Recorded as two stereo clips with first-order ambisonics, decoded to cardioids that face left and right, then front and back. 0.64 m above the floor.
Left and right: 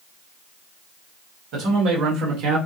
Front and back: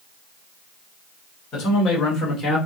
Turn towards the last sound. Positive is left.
turn(degrees=-75)